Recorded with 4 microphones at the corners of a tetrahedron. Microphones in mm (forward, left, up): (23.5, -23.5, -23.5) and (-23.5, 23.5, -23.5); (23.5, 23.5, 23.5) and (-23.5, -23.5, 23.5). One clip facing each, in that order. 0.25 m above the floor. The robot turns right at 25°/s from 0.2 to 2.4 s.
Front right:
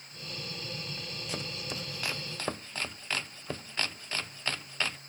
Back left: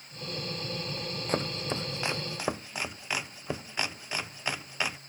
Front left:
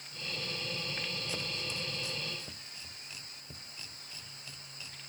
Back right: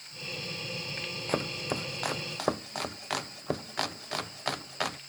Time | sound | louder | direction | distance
1.3 | chopping | back left 8 dB, back right 8 dB | 175° right | ?